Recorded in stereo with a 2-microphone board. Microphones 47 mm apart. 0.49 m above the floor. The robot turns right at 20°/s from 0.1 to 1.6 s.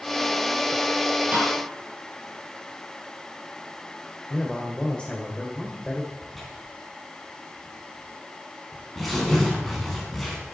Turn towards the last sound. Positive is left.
turn(degrees=5)  # may be behind; listen again after turning